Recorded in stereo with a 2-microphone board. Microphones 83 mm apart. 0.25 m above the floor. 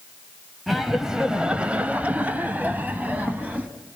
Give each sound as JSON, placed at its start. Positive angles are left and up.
{"t": 0.7, "sound": "laughter", "side_deg": 0, "distance_m": 1.0}